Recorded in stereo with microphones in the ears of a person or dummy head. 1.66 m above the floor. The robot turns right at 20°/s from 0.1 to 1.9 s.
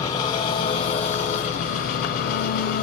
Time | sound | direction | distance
0.0 | an engine running | 25° left | 1.0 m